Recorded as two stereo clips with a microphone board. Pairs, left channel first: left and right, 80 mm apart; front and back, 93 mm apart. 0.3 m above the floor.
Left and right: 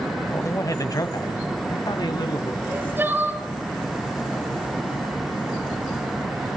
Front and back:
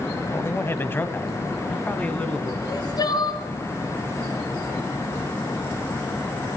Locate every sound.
0.3 s a man speaking: 50° left, 1.5 m; by 2.5 s 75° left, 2.5 m
2.6 s crying: 30° right, 2 m